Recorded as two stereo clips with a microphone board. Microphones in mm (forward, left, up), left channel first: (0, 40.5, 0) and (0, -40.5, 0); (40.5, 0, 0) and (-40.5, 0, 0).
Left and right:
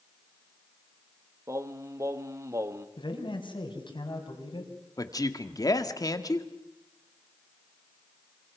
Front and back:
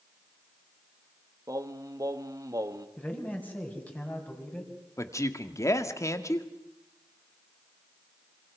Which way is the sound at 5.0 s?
50° left.